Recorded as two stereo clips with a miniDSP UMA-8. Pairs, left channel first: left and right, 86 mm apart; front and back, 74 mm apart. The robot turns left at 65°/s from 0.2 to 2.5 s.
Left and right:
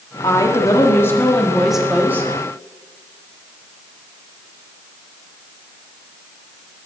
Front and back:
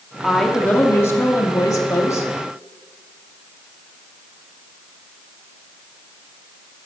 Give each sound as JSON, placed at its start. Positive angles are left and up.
{"t": 0.2, "sound": "a woman speaking", "azimuth_deg": 95, "distance_m": 1.2}